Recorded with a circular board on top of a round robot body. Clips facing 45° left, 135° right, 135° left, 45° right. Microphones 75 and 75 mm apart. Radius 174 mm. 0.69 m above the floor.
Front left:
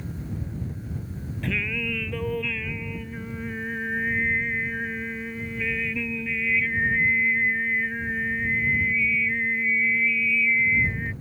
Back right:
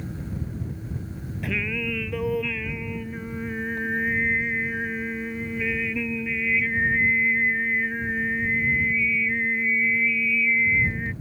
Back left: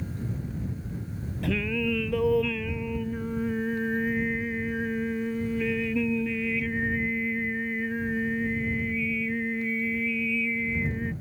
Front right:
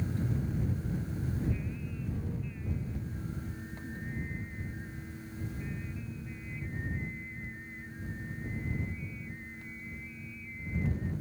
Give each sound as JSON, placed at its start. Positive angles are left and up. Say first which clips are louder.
{"t": 1.4, "sound": "singing", "louder": "even, back left 10 dB", "azimuth_deg": 140}